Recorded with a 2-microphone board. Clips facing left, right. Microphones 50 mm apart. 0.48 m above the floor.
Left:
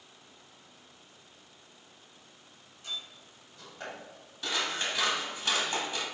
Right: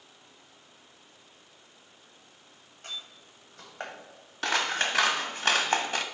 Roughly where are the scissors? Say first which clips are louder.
Right 5 dB; right.